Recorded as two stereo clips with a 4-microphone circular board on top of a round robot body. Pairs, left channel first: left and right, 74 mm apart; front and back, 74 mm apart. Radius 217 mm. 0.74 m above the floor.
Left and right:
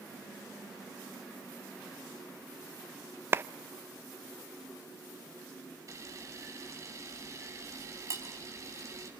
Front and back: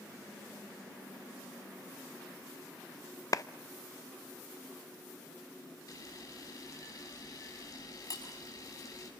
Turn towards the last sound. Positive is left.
turn(degrees=-40)